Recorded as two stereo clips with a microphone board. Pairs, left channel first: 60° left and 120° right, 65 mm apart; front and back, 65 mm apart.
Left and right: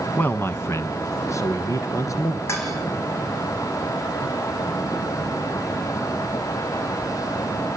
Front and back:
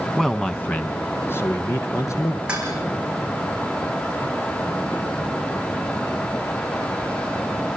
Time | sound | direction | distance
0.2 | a man speaking | 80° left | 1.1 m
2.5 | dishes clattering | 105° left | 6.5 m